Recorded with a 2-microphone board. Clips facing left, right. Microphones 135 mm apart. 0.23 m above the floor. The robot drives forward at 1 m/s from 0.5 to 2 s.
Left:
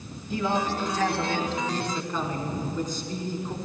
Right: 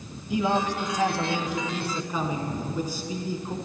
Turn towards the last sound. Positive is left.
turn(degrees=-10)  # may be behind; listen again after turning